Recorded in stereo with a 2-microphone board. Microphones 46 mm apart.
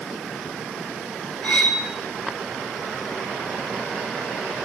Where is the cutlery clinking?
35° left (ahead or behind), 5 m.